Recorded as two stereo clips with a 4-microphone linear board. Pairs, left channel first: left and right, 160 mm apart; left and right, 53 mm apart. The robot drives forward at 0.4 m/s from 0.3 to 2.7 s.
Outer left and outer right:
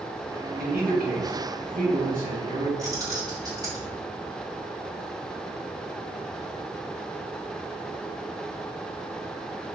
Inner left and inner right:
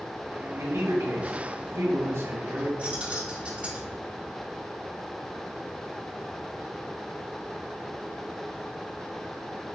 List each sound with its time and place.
0.6 s a man speaking: 65° right (ahead or behind), 2.5 m; by 2.7 s 55° right (ahead or behind), 3 m
2.8 s keys jangling: 25° right (ahead or behind), 3 m